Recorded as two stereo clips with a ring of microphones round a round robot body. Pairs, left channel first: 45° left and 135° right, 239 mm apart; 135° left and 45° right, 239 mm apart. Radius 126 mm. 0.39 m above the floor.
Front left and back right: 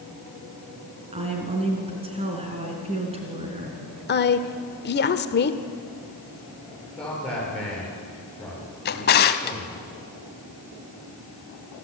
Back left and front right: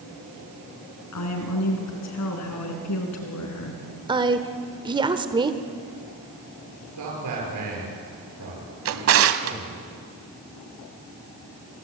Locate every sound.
1.1 s a woman speaking: 155° left, 4 m
4.1 s a woman speaking: 20° left, 1.3 m
7.0 s a man speaking: 40° right, 9.5 m
8.8 s a drawer: 10° right, 1.0 m